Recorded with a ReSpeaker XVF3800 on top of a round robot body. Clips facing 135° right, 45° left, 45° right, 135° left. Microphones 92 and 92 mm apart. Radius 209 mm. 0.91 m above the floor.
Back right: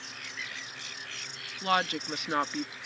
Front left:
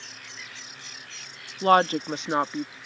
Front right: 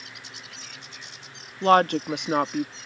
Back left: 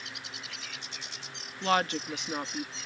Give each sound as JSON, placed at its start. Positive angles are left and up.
{"t": 1.6, "sound": "a woman speaking", "azimuth_deg": 0}